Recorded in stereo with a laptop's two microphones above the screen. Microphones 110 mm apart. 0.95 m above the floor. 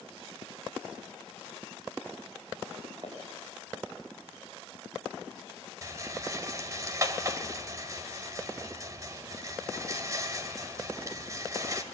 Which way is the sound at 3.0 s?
40° right (ahead or behind).